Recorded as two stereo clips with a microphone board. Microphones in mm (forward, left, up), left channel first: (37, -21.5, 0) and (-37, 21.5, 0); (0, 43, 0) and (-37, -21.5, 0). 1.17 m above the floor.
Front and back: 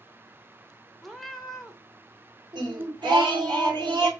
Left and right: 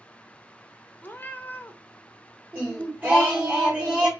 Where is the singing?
Straight behind, 2 m.